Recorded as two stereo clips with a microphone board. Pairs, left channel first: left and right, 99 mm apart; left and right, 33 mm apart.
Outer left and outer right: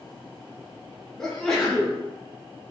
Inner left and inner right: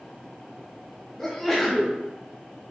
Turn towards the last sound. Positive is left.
turn(degrees=5)  # may be behind; listen again after turning